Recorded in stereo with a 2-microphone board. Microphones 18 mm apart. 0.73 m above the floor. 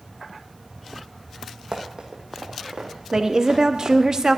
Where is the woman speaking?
30° right (ahead or behind), 0.7 m.